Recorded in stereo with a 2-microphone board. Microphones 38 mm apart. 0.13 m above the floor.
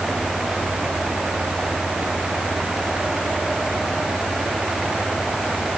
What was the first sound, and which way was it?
Only background noise.